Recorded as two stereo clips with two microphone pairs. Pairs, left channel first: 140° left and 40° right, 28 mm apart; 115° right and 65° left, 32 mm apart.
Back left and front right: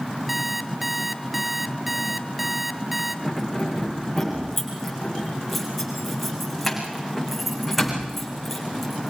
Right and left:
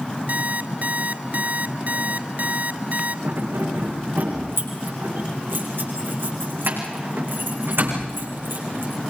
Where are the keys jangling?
55° left, 7.5 m.